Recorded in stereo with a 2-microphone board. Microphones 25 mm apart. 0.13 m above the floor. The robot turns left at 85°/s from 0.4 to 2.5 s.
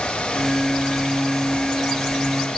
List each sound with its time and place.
Only background noise.